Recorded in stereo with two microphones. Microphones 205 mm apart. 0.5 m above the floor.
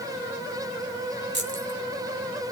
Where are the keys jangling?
60° right (ahead or behind), 2.5 m.